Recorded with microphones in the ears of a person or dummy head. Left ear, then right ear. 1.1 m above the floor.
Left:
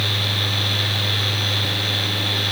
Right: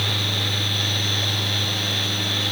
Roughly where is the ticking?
I don't hear ticking.